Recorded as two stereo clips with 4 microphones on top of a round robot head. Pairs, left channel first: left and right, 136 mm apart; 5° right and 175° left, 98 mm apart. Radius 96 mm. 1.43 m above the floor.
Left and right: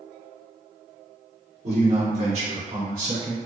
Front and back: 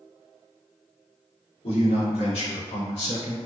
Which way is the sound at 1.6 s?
45° right.